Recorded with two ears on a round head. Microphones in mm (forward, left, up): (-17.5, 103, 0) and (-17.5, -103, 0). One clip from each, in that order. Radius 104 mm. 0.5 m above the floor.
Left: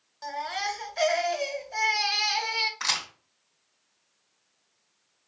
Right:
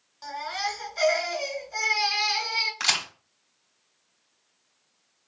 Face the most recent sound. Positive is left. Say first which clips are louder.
# right 3 dB
turn(degrees=-65)  # may be behind; listen again after turning